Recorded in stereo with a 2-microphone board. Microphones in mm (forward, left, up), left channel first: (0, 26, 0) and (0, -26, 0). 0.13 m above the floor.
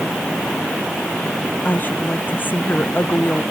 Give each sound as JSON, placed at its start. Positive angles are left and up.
{"t": 1.6, "sound": "a woman speaking", "side_deg": 40}